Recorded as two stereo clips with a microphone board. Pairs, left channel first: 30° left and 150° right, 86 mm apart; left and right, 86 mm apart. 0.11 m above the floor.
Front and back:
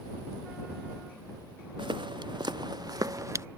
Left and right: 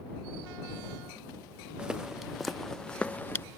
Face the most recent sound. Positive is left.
turn(degrees=155)